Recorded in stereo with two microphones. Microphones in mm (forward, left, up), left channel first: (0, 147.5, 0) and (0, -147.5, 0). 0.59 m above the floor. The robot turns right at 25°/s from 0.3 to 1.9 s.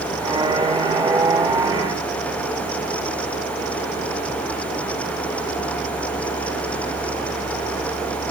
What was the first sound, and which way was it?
Only background noise.